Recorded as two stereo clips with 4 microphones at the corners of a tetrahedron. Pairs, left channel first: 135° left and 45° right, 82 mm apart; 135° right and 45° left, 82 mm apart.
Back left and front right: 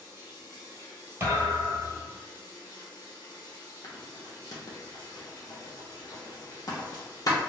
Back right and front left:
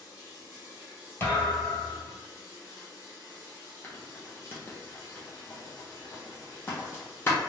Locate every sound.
0.0 s running water: straight behind, 1.0 m
1.2 s a thud: 90° right, 1.2 m
3.8 s writing: 165° left, 0.7 m